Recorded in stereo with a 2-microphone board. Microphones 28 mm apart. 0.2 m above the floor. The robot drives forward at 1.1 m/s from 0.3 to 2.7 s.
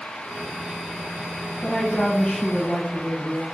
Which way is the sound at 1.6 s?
20° left (ahead or behind).